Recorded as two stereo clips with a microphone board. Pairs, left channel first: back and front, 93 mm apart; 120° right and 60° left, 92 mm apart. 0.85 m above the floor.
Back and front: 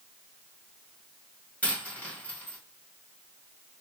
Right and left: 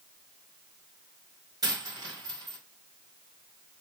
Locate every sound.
1.6 s a dropped coin: 105° left, 1.7 m